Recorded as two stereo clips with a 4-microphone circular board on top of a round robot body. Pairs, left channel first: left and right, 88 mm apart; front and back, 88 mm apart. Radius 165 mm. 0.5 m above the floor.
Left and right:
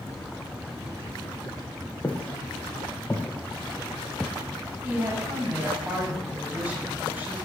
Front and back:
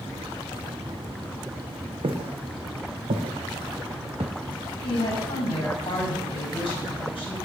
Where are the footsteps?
165° left, 2 m; by 4.3 s straight behind, 0.5 m.